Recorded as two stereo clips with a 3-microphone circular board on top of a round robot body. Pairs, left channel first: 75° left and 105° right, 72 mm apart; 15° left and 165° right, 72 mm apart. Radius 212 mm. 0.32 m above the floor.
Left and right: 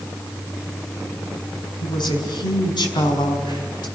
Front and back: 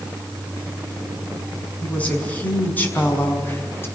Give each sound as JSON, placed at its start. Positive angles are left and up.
{"t": 1.8, "sound": "a woman speaking", "azimuth_deg": 85, "distance_m": 6.0}